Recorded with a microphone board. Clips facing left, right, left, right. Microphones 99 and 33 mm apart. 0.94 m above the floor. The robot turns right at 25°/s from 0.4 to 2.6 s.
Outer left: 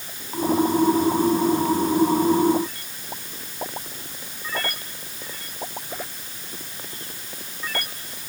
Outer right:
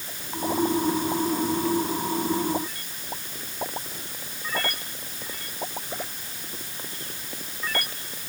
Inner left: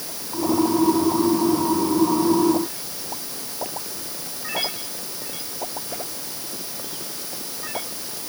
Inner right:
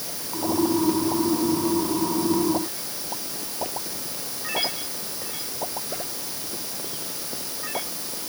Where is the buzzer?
No buzzer in this recording.